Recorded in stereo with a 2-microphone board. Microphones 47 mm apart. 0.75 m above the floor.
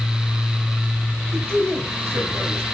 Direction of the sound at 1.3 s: 75° right (ahead or behind).